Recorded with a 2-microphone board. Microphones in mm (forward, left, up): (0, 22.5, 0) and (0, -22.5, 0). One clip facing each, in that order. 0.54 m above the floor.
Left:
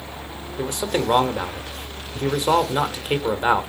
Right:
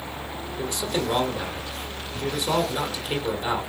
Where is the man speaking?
40° left (ahead or behind), 1.7 m.